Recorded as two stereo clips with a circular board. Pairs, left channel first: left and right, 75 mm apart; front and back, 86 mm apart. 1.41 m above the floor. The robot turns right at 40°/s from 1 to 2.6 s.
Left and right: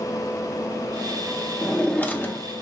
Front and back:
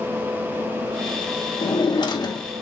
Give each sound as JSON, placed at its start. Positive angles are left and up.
{"t": 1.6, "sound": "a drawer", "azimuth_deg": 5, "distance_m": 1.5}